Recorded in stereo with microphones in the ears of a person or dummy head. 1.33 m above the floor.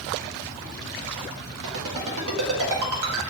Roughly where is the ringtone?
Right.